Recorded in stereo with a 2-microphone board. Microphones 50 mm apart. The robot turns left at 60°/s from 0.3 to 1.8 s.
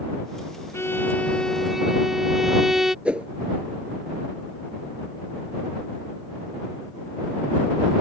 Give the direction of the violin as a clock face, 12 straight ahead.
10 o'clock.